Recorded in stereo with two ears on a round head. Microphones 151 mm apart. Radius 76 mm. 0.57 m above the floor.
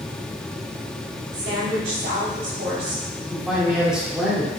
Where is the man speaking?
5° right (ahead or behind), 1.7 m.